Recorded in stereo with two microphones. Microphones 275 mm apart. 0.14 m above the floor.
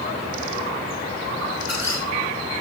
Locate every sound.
1.6 s a squeak: 80° right, 3.5 m